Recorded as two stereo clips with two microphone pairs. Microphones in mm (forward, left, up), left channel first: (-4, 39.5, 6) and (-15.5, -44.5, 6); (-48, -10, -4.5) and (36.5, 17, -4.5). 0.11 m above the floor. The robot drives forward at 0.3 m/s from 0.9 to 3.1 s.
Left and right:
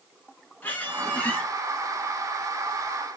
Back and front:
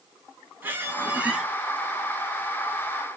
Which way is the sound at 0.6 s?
45° left.